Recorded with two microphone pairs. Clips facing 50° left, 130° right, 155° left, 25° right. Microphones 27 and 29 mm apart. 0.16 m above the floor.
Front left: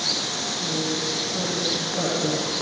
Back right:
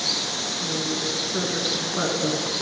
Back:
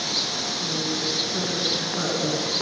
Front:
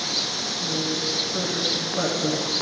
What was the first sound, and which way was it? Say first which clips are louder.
A woman speaking: front left 1 dB, front 2 dB; 125° right.